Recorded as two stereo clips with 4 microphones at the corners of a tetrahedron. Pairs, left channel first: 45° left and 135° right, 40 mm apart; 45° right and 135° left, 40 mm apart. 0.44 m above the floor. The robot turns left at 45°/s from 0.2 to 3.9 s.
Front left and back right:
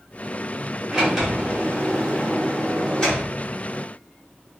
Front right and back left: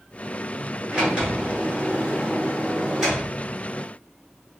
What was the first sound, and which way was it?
A sliding door, 160° left.